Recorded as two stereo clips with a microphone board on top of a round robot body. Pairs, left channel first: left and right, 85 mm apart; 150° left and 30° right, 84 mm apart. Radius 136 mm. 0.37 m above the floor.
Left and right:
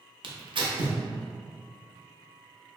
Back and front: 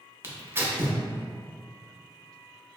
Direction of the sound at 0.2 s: 90° right.